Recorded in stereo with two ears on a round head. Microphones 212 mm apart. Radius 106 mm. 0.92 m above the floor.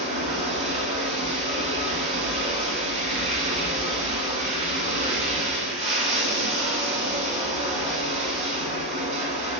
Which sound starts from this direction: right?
Running water, at 0.0 s.